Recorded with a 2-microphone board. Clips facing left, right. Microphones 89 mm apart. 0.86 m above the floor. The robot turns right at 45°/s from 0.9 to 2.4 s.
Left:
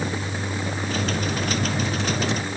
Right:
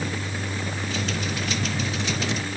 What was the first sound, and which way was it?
Only background noise.